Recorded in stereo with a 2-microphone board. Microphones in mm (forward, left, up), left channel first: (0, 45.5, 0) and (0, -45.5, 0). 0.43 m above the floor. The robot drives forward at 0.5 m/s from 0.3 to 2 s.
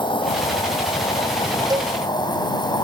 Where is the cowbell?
45° right (ahead or behind), 0.7 m; by 1.9 s 50° right (ahead or behind), 0.7 m.